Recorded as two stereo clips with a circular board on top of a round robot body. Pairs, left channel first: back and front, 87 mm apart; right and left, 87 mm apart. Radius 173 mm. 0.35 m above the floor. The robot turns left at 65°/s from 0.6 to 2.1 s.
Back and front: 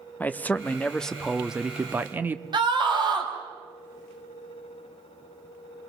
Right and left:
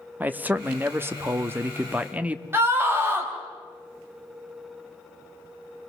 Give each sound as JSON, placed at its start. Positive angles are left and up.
{"t": 0.2, "sound": "a man speaking", "azimuth_deg": 135, "distance_m": 1.1}
{"t": 2.5, "sound": "a scream", "azimuth_deg": 25, "distance_m": 3.5}